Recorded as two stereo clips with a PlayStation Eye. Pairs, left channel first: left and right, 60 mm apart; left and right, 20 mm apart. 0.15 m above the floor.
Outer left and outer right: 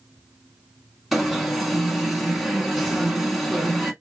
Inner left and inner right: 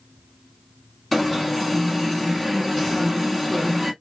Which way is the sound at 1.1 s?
5° right (ahead or behind).